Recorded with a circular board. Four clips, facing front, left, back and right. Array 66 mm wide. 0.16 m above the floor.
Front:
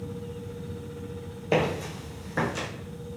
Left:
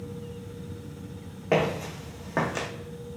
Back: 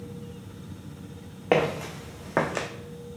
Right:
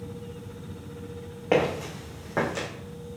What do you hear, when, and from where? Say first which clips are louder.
1.5 s footsteps: right 1 dB, back 2 dB; 170° right, 1.1 m; by 2.7 s 160° left, 0.7 m